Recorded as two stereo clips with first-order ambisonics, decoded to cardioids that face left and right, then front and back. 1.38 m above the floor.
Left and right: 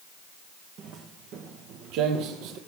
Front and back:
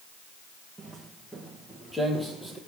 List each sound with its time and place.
0.8 s footsteps: 95° right, 1.7 m; by 2.6 s 80° right, 2.5 m